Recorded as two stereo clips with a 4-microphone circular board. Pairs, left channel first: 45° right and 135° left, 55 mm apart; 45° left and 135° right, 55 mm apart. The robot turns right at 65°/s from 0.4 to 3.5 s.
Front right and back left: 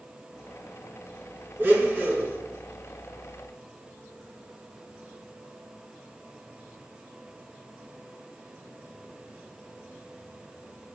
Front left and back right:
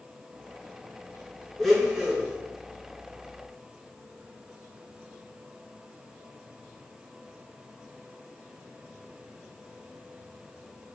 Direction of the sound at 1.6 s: 120° left.